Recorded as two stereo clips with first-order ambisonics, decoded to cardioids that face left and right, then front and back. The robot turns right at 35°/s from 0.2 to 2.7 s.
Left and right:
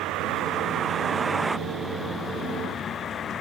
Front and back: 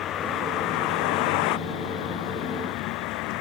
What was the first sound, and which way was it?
A vehicle, 50° right.